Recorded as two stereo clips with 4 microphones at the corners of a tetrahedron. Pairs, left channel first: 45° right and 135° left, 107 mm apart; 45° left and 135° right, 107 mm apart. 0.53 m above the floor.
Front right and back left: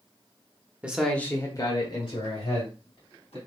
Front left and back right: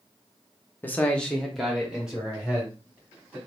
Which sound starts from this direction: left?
A man speaking, at 0.8 s.